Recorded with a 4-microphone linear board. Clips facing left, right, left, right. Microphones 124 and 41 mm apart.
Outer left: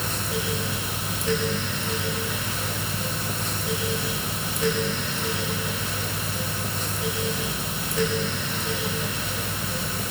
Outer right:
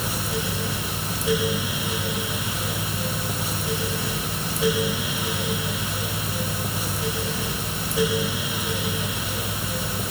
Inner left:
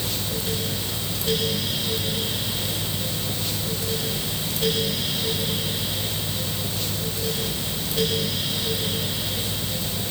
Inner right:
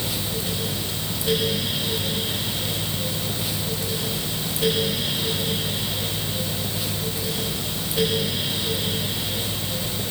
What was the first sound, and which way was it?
Only background noise.